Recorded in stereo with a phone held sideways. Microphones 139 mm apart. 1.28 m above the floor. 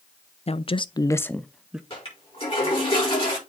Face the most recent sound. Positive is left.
turn(degrees=40)  # may be behind; listen again after turning